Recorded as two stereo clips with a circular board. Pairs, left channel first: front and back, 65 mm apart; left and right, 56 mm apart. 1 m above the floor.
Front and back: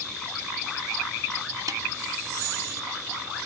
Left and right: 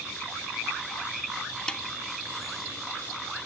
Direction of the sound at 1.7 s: 165° left.